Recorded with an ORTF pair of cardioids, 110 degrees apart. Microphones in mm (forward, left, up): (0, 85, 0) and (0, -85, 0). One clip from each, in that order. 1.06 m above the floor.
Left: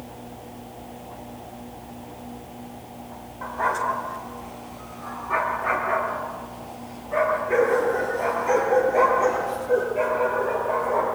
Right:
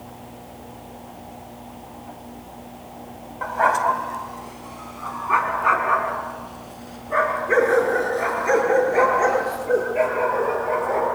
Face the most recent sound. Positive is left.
turn(degrees=-50)